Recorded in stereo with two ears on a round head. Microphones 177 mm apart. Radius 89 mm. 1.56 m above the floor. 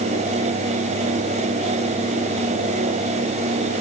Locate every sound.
Only background noise.